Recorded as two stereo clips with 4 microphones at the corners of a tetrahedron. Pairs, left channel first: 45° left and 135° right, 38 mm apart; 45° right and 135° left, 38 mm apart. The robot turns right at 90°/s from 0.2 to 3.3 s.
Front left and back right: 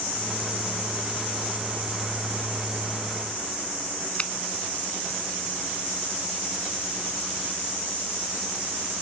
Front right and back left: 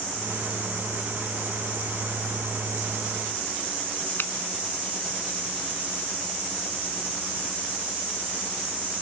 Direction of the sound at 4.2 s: 15° right.